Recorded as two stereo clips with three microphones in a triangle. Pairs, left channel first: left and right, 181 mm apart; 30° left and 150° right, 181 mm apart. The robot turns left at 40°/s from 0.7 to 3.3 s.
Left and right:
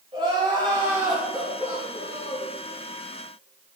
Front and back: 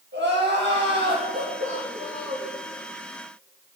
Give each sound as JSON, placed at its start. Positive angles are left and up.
{"t": 0.1, "sound": "crying", "azimuth_deg": -150, "distance_m": 4.5}